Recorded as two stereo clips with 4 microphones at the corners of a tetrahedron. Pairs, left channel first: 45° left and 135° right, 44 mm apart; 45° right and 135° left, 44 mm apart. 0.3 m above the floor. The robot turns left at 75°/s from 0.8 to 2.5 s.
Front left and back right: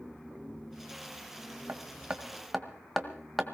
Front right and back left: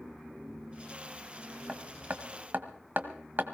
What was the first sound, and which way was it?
Hammering, 165° right.